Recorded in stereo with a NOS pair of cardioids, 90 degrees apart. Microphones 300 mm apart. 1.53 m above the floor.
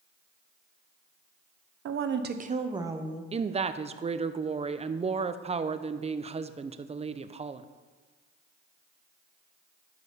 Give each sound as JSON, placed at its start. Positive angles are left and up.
{"t": 1.9, "sound": "a woman speaking", "azimuth_deg": -55, "distance_m": 1.0}
{"t": 3.3, "sound": "a woman speaking", "azimuth_deg": -25, "distance_m": 0.6}